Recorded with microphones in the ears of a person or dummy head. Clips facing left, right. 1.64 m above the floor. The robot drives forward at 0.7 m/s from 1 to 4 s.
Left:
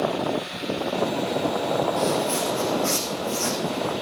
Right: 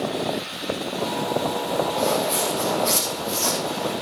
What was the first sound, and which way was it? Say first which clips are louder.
Footsteps: right 1 dB; 35° left (ahead or behind).